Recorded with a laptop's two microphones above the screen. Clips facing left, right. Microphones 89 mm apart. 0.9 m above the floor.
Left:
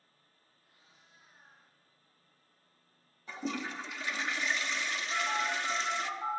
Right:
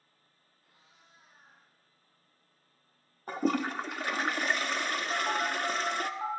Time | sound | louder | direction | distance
0.6 | a cat meowing | right 3 dB | 80° right | 4.5 m
3.3 | a toilet flushing | right 8 dB | 50° right (ahead or behind) | 0.5 m
5.1 | a phone buzzing | right 1 dB | 75° right (ahead or behind) | 6.5 m